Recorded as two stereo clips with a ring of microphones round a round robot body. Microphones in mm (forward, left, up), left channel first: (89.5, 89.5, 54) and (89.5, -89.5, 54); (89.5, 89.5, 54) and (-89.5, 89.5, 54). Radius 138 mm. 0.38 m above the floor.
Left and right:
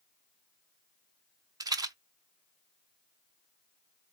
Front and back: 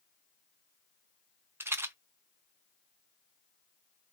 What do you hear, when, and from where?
1.6 s a rattle: 120° right, 0.6 m